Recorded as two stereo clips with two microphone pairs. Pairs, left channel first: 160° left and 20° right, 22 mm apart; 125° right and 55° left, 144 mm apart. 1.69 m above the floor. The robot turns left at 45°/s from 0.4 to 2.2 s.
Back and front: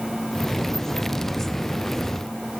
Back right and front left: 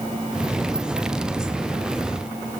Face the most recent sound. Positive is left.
No sound to turn to.